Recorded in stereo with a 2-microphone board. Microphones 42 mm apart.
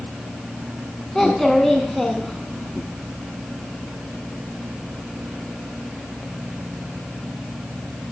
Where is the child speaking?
10° left (ahead or behind), 0.6 m.